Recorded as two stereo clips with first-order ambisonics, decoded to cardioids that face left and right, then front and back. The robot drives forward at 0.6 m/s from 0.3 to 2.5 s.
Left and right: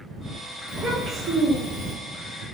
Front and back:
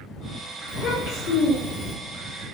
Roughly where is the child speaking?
Ahead right.